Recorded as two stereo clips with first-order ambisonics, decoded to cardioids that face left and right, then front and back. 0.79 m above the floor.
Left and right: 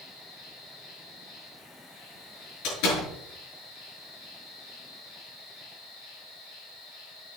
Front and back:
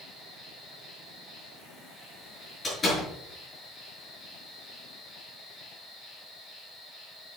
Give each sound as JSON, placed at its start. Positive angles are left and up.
{"t": 0.0, "sound": "an insect", "azimuth_deg": 85, "distance_m": 5.5}
{"t": 2.6, "sound": "a door slam", "azimuth_deg": 75, "distance_m": 8.0}